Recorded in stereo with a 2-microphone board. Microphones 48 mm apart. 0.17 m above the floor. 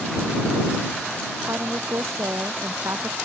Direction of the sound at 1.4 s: 80° right.